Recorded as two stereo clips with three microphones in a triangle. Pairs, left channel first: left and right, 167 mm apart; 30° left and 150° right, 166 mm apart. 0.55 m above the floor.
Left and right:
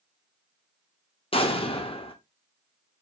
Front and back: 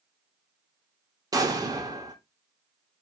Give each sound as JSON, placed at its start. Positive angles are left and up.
{"t": 1.3, "sound": "an explosion", "azimuth_deg": 145, "distance_m": 0.5}